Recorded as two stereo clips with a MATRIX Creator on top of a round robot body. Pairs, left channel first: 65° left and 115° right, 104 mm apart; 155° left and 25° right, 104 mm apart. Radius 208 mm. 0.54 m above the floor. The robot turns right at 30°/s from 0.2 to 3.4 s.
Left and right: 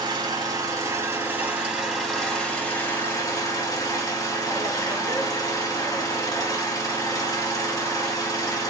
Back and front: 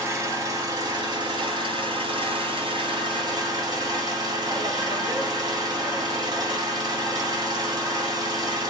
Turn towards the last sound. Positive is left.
turn(degrees=15)